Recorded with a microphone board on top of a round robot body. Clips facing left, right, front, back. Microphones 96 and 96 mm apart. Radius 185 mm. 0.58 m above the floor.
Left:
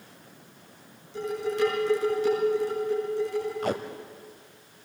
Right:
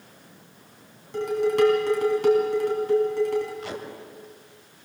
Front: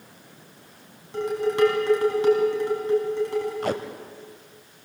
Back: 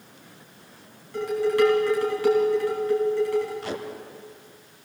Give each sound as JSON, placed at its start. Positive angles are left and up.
{"t": 1.1, "sound": "dishes clattering", "azimuth_deg": -65, "distance_m": 4.0}
{"t": 3.6, "sound": "tape being pulled", "azimuth_deg": 45, "distance_m": 0.9}